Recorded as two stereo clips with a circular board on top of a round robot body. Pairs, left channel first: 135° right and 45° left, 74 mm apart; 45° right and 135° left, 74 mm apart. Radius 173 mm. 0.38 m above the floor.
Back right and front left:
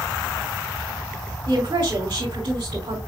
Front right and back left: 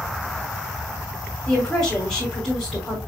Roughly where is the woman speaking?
Ahead left.